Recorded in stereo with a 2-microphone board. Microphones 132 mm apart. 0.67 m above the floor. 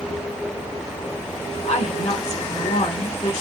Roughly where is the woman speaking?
Left.